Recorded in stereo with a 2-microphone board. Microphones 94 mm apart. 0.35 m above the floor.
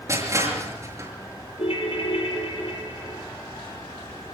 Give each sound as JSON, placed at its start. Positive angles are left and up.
{"t": 0.1, "sound": "crushing", "side_deg": -35, "distance_m": 5.5}
{"t": 1.6, "sound": "a ringtone", "side_deg": 80, "distance_m": 5.0}